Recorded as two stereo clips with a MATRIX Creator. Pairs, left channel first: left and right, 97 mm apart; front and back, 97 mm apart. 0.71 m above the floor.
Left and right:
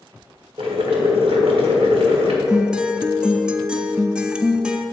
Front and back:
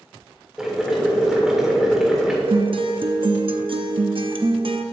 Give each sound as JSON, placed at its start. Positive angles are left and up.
{"t": 0.6, "sound": "boiling", "azimuth_deg": -95, "distance_m": 1.6}
{"t": 2.5, "sound": "a guitar", "azimuth_deg": -170, "distance_m": 0.6}